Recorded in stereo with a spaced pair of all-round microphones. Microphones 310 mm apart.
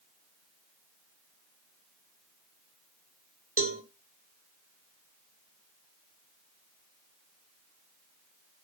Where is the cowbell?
45° right (ahead or behind), 2.0 m.